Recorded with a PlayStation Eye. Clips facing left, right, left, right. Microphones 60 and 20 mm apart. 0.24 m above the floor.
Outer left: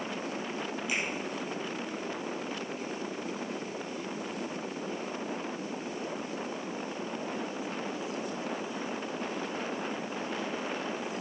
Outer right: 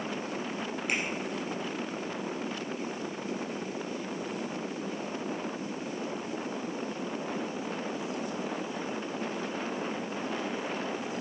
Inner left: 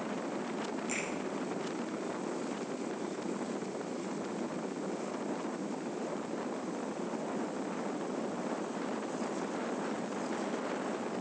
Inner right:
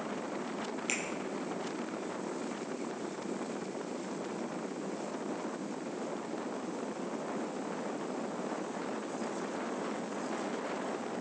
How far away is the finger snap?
About 4.5 m.